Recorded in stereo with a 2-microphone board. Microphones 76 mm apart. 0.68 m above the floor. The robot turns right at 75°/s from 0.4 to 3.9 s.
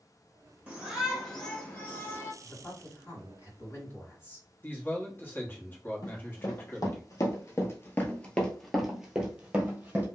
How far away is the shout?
About 1.0 m.